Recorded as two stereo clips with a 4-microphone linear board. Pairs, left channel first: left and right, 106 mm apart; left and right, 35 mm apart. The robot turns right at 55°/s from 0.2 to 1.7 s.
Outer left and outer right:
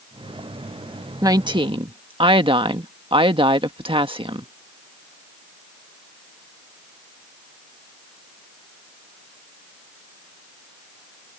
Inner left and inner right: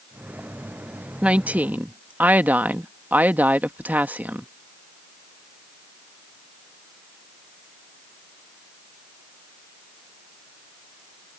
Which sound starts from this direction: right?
A woman speaking, at 1.2 s.